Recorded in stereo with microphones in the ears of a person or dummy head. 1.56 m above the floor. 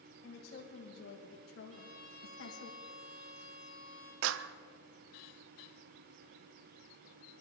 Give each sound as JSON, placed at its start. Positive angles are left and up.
{"t": 0.2, "sound": "a woman speaking", "side_deg": 45, "distance_m": 2.0}
{"t": 1.7, "sound": "a violin", "side_deg": -35, "distance_m": 6.5}
{"t": 4.2, "sound": "a clap", "side_deg": -70, "distance_m": 0.6}